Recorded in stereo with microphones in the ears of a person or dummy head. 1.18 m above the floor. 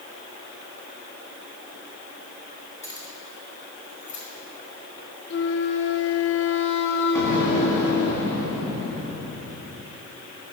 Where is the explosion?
10° left (ahead or behind), 2.5 m.